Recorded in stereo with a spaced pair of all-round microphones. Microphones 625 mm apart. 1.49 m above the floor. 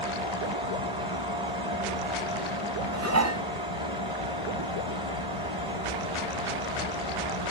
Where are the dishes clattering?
25° right (ahead or behind), 0.6 m.